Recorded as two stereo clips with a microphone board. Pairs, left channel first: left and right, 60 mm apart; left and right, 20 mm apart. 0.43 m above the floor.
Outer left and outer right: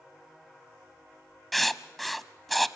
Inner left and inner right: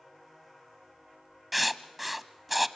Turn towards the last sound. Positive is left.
turn(degrees=0)  # may be behind; listen again after turning